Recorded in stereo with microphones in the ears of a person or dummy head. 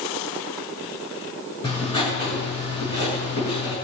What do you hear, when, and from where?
1.6 s writing: 30° left (ahead or behind), 7.5 m